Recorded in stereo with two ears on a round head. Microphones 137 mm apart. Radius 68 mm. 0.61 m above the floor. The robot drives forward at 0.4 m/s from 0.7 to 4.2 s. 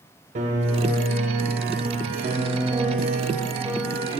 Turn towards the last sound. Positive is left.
turn(degrees=-35)  # may be behind; listen again after turning